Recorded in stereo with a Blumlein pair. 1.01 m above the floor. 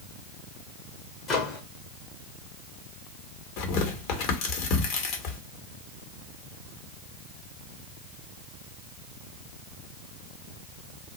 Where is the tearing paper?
40° left, 1.2 m.